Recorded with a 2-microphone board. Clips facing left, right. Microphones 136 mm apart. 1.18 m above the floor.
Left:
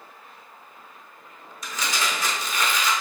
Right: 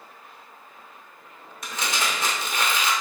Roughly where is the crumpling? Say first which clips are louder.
Even; right.